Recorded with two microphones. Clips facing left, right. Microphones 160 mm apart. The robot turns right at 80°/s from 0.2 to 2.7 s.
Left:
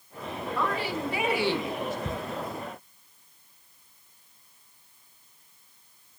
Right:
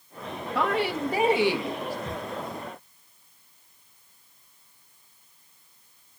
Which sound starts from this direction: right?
A woman speaking, at 0.6 s.